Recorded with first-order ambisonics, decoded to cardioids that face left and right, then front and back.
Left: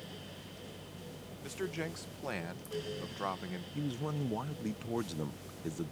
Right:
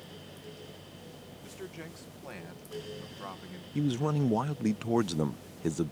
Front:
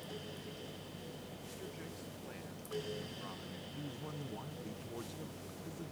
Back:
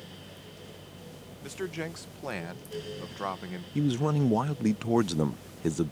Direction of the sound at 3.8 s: 155° right.